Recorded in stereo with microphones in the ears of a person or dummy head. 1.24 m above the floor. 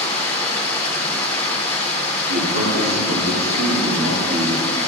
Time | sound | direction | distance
0.0 | running water | 10° left (ahead or behind) | 2.5 m
2.3 | a man speaking | 60° right (ahead or behind) | 2.5 m